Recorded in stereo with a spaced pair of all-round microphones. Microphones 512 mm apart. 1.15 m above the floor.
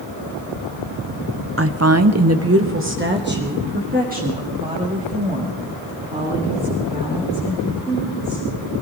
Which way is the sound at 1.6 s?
25° right (ahead or behind).